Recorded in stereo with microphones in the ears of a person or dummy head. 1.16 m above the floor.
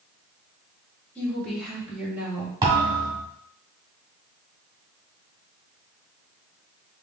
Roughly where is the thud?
Right.